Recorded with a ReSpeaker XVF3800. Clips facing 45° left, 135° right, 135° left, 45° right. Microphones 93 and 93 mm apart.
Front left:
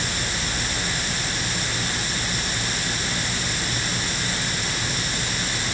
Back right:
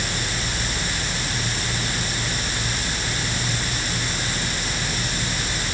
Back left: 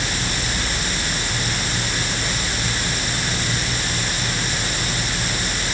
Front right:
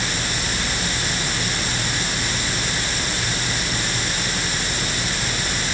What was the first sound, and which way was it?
Only background noise.